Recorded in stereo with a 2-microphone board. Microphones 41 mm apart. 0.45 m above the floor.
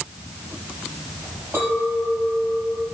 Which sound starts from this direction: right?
A clink, at 1.5 s.